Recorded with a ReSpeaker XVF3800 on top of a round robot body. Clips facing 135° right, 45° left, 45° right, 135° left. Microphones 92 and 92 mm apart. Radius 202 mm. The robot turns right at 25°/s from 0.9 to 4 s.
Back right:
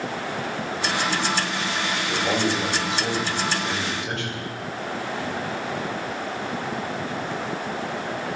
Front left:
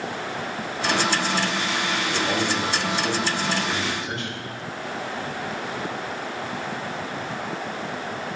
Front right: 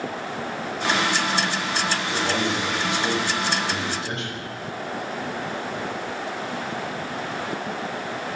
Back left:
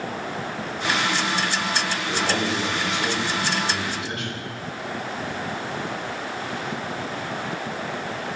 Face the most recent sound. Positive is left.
turn(degrees=-105)